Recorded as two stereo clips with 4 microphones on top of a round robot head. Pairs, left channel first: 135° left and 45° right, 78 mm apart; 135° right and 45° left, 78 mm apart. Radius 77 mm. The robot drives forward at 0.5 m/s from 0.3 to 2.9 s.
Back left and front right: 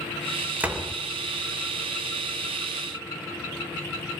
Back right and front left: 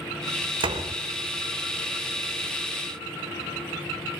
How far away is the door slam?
About 3 m.